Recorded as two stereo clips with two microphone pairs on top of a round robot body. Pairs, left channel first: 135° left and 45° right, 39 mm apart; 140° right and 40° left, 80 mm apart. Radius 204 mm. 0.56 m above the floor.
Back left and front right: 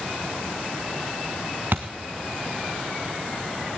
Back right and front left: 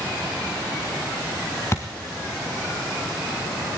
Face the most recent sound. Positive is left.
turn(degrees=-80)